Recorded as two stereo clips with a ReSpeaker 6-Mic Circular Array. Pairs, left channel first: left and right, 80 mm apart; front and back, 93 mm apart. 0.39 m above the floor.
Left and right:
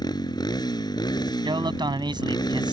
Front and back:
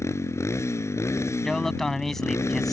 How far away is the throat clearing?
No throat clearing in this recording.